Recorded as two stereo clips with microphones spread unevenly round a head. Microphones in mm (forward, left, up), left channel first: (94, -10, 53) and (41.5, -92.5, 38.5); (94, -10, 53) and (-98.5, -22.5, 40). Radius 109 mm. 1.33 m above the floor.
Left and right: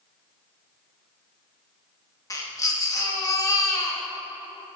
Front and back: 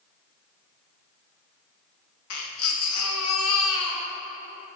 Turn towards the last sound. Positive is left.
turn(degrees=0)